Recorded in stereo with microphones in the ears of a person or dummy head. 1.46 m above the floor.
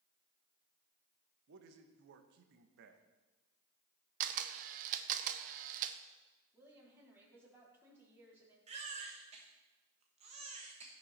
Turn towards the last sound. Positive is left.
turn(degrees=-35)  # may be behind; listen again after turning